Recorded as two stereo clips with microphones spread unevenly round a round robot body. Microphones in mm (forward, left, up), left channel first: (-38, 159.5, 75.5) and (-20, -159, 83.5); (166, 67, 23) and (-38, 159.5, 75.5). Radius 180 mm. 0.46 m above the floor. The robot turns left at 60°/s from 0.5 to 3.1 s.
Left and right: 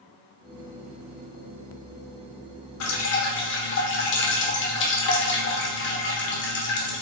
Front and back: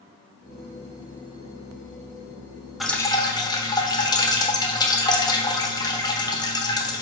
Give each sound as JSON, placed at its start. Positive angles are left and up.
{"t": 2.8, "sound": "dripping", "azimuth_deg": 60, "distance_m": 0.9}